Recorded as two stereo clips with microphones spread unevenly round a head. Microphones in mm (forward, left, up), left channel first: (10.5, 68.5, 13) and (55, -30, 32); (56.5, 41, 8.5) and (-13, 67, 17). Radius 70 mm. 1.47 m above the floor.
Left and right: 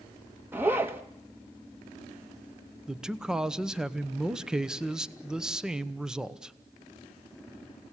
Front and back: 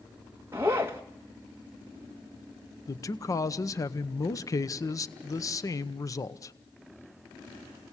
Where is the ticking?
No ticking in this recording.